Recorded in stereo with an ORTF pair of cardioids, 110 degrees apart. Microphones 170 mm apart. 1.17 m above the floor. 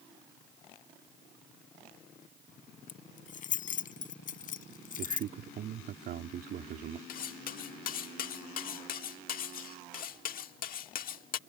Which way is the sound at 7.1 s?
60° left.